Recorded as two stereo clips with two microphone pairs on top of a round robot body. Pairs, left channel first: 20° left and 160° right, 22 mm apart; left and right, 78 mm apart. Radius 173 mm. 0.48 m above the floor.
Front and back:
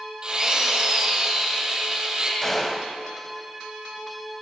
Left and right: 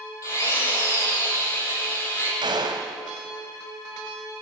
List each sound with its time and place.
0.2 s a drill: 140° left, 9 m
2.4 s a gunshot: 60° right, 2 m